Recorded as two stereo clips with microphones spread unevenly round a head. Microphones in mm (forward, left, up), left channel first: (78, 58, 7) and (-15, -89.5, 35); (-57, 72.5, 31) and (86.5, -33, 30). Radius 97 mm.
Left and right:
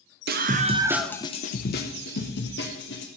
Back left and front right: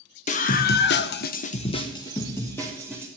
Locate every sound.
0.3 s a scream: 165° right, 1.2 m; by 3.1 s 60° left, 2.5 m